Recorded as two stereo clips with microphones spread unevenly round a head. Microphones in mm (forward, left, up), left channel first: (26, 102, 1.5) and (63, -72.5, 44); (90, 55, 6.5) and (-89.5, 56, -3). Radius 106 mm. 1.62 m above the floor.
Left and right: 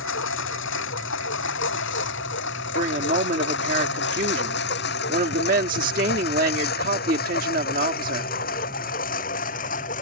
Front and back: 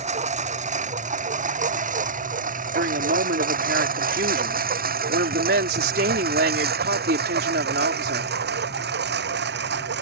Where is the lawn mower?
130° left; by 10.0 s 155° left.